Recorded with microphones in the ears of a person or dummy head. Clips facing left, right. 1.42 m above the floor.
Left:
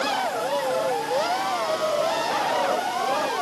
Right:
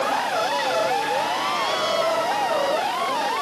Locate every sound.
Only background noise.